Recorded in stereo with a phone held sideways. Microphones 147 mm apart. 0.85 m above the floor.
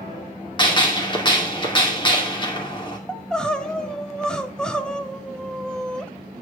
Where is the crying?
5° left (ahead or behind), 0.8 m.